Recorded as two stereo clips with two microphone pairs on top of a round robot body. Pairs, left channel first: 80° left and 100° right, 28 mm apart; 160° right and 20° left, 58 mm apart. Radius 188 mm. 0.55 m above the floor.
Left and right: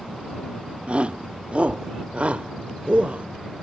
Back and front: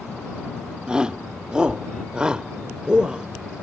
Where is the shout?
55° right.